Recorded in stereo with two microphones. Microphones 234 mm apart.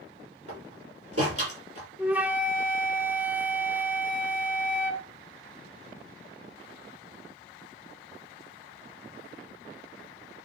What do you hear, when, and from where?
0.5 s a door slam: 80° right, 6 m
2.0 s a flute: 5° right (ahead or behind), 1.0 m